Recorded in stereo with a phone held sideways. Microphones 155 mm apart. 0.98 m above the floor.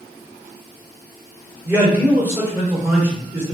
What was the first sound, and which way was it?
A man speaking, 10° right (ahead or behind).